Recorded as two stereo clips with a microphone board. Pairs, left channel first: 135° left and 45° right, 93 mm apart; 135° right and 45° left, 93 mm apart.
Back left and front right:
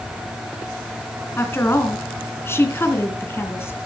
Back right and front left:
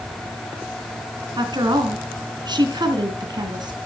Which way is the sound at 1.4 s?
75° left.